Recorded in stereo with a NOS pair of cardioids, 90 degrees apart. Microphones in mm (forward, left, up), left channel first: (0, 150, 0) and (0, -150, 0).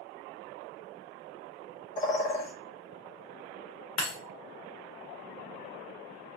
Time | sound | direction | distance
2.0 | a bird | 25° left | 1.0 m
4.0 | breaking glass | 55° left | 1.2 m